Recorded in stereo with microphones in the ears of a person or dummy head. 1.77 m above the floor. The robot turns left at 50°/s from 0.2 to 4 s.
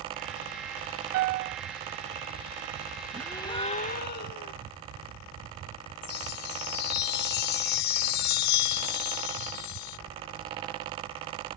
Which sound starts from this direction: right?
A piano, at 1.1 s.